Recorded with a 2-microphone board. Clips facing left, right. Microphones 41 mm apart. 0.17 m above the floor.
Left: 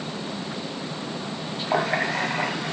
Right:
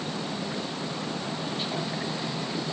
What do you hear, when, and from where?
1.7 s a running tap: 55° left (ahead or behind)